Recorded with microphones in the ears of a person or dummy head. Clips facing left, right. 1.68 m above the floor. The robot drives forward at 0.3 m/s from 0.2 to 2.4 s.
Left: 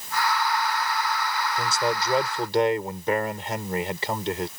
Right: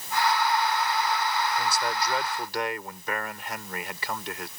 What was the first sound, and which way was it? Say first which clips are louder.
A man speaking: left 3 dB; 25° left (ahead or behind).